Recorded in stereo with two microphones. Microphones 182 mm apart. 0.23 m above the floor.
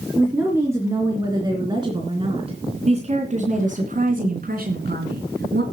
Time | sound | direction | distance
0.2 | a woman speaking | 10° right (ahead or behind) | 3.5 m